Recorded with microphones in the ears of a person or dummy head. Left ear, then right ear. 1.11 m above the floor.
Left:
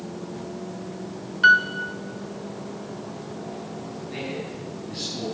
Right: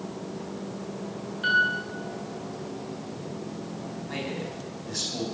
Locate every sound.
1.4 s a piano: 50° left (ahead or behind), 2.0 m
4.1 s a man speaking: 45° right (ahead or behind), 7 m